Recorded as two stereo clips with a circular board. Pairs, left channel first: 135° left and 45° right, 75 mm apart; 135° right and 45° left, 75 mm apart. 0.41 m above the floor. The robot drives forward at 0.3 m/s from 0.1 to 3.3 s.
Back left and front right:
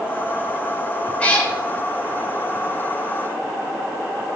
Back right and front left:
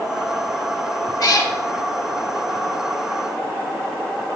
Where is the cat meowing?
155° right, 0.5 m; by 1.5 s 160° right, 0.6 m.